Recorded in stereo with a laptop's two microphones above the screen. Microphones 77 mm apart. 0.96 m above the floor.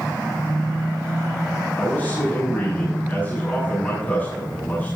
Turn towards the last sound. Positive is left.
turn(degrees=20)  # may be behind; listen again after turning